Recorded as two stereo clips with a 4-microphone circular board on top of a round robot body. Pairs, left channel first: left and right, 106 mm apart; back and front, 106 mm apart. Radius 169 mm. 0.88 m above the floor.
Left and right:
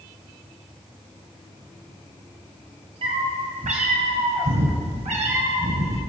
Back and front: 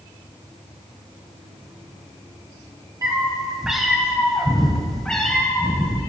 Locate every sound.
3.0 s a cat meowing: 60° right, 0.9 m; by 6.0 s 100° right, 2.5 m